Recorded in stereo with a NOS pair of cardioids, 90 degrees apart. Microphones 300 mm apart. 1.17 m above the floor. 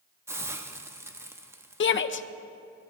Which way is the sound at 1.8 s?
40° left.